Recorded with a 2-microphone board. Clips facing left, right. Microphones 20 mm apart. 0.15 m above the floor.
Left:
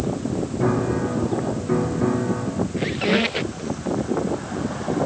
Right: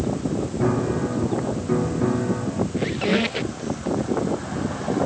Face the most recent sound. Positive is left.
turn(degrees=10)  # may be behind; listen again after turning